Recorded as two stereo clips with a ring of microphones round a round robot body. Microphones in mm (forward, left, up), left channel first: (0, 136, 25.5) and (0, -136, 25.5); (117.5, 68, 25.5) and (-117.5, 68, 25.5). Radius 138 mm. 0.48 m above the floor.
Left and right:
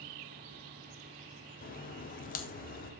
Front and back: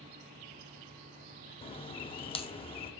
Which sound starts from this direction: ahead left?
A crack, at 1.6 s.